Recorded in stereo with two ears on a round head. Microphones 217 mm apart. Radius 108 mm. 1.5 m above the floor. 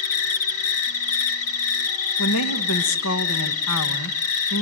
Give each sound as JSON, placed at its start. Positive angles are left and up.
{"t": 0.0, "sound": "an insect", "side_deg": 65, "distance_m": 1.5}
{"t": 2.2, "sound": "a woman speaking", "side_deg": 65, "distance_m": 1.5}